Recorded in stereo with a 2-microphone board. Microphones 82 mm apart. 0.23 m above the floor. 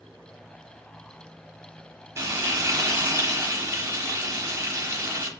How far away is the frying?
About 1.1 m.